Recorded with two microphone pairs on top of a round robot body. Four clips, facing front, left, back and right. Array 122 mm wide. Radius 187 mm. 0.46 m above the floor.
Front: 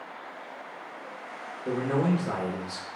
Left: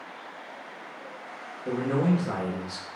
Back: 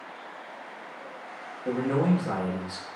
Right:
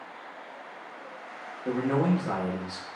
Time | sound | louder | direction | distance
1.6 | a man speaking | even, back 1 dB | 120° right | 1.1 m